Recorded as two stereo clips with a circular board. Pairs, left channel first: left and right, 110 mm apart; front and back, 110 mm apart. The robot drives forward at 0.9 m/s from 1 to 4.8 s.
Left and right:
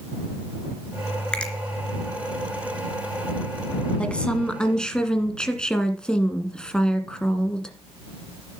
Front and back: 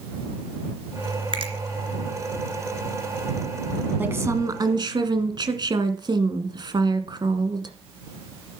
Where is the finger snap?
165° left, 2.5 m; by 1.5 s 170° left, 2.5 m.